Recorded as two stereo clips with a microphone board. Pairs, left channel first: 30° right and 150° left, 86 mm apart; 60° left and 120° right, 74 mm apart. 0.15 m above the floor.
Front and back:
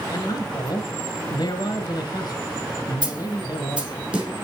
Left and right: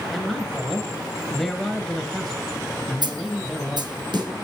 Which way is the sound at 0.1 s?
25° right.